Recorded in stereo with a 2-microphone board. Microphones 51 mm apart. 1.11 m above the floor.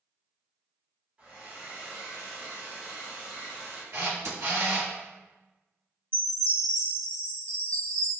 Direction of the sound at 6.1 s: 25° left (ahead or behind).